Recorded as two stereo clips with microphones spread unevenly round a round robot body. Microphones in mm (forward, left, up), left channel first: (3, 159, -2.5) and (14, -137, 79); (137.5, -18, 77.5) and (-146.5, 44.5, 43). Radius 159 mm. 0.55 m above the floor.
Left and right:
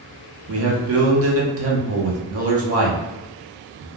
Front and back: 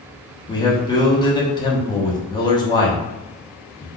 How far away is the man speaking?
About 0.8 m.